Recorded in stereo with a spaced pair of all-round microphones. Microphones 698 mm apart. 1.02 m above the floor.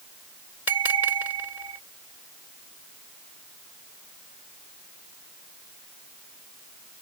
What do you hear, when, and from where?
0.7 s a bell: 75° left (ahead or behind)